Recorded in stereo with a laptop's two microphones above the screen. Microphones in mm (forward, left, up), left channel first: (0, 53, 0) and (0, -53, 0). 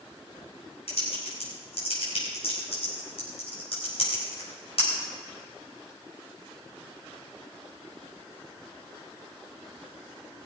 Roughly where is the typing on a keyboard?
Left.